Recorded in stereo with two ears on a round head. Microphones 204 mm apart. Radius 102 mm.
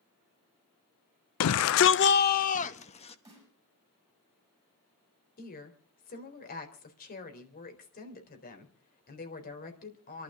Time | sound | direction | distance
1.4 | a shout | 70° left (ahead or behind) | 0.5 m
3.2 | a snare drum | 15° right (ahead or behind) | 8.5 m
5.4 | a woman speaking | 40° left (ahead or behind) | 4 m